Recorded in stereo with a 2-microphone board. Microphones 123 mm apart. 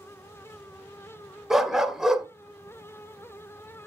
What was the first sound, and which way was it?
A dog barking, 5° right (ahead or behind).